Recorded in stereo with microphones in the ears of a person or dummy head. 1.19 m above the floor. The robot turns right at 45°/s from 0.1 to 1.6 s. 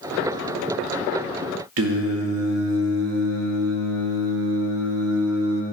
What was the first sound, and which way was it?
Singing, 80° right.